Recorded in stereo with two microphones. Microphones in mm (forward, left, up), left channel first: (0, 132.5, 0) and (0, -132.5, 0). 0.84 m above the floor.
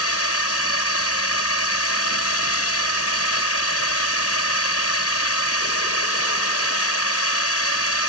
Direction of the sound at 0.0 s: 65° left (ahead or behind).